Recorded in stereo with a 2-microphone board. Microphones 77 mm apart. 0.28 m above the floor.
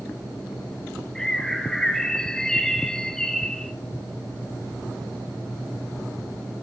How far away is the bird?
About 1.7 m.